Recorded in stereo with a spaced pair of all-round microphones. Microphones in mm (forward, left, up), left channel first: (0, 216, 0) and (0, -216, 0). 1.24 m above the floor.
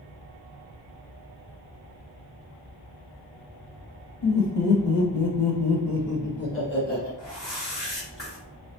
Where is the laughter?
60° left (ahead or behind), 1.2 m; by 7.1 s 20° left (ahead or behind), 1.4 m.